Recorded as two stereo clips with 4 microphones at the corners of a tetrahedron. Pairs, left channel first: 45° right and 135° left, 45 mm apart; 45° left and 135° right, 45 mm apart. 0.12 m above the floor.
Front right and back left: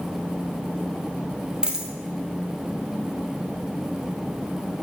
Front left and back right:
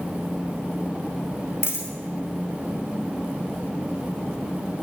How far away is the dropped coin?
About 1.3 m.